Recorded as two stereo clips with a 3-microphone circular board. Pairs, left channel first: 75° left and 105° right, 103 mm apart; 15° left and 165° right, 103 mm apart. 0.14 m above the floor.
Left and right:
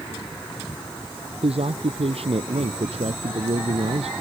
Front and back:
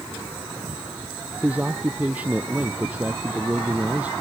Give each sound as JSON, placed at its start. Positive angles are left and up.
{"t": 1.4, "sound": "a man speaking", "azimuth_deg": -90}